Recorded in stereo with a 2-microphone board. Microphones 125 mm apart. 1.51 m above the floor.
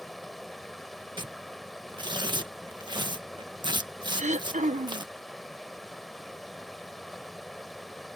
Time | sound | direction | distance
0.0 | running water | centre (ahead or behind) | ?
1.2 | tearing paper | 35° right (ahead or behind) | ?
4.2 | throat clearing | 75° right (ahead or behind) | ?